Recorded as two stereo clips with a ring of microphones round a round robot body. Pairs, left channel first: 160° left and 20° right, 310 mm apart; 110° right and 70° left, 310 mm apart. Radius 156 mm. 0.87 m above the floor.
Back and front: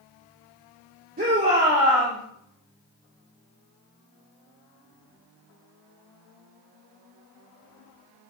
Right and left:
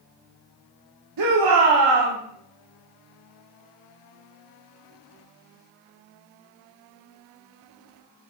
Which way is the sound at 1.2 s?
40° left.